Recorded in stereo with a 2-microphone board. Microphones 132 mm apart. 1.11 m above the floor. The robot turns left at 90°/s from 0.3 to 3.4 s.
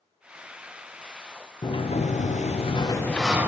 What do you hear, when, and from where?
1.6 s a sliding door: 145° left, 0.6 m; by 3.5 s 15° right, 0.6 m